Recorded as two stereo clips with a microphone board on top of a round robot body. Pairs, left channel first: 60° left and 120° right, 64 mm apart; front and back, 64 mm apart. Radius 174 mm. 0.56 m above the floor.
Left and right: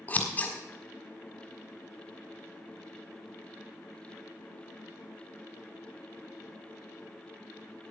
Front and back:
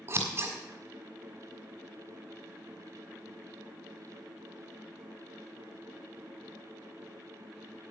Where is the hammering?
I don't hear hammering.